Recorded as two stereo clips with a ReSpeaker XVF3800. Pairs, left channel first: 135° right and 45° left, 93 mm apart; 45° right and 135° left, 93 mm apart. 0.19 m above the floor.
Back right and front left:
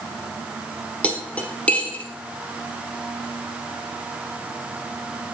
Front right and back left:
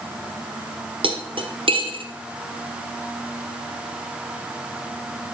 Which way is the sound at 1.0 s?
150° left.